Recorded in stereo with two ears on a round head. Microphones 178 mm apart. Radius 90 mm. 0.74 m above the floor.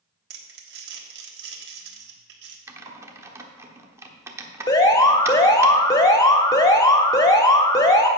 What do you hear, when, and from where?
0.3 s crumpling: 55° right (ahead or behind), 1.3 m
2.7 s typing on a keyboard: 15° right (ahead or behind), 0.9 m
4.7 s an alarm: 20° left (ahead or behind), 1.1 m